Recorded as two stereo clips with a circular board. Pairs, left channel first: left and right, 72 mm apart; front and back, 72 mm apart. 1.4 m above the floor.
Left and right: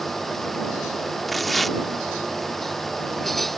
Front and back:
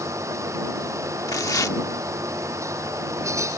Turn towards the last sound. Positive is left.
turn(degrees=0)